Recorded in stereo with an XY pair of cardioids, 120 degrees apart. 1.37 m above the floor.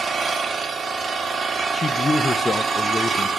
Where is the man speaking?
25° left, 0.6 m.